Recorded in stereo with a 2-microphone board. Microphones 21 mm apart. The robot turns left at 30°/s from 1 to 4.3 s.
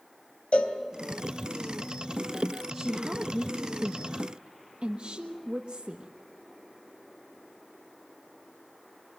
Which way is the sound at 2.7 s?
15° right.